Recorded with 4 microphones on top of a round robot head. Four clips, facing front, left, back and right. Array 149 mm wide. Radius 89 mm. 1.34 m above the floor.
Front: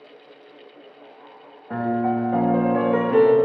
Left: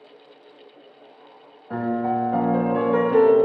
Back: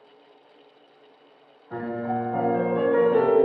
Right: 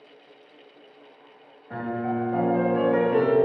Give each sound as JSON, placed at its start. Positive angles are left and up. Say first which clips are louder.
{"t": 1.7, "sound": "a piano", "louder": "left 5 dB, front 6 dB", "azimuth_deg": 30, "distance_m": 2.0}